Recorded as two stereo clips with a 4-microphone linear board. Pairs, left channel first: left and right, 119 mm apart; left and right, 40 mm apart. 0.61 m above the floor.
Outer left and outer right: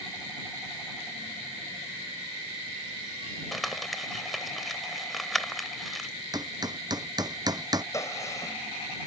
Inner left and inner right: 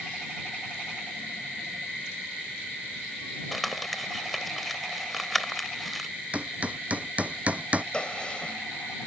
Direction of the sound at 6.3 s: 35° right (ahead or behind).